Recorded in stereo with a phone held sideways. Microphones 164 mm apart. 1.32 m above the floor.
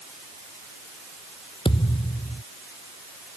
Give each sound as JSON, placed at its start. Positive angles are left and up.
{"t": 1.6, "sound": "a thud", "side_deg": 30}